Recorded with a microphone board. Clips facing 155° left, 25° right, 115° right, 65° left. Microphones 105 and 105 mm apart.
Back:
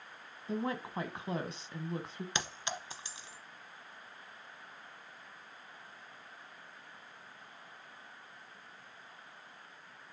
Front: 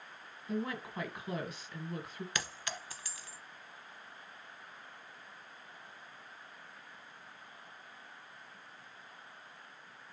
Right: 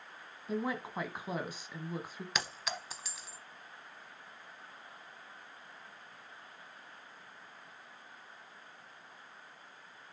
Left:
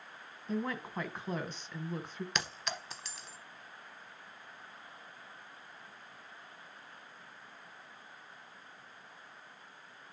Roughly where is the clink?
Behind.